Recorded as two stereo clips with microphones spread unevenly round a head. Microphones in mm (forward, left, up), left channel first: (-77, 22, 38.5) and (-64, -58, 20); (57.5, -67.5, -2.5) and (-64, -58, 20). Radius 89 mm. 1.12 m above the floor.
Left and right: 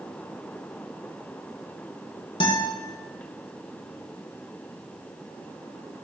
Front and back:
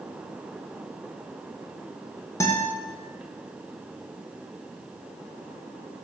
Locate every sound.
2.4 s a guitar: 60° left, 1.2 m